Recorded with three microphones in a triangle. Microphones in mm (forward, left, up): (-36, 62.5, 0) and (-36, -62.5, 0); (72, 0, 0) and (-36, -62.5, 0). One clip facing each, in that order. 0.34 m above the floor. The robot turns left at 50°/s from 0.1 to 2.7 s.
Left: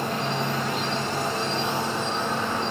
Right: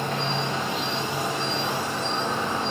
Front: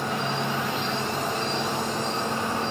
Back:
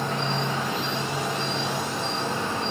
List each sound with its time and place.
0.0 s an insect: 120° left, 1.9 m; by 2.7 s 10° right, 1.9 m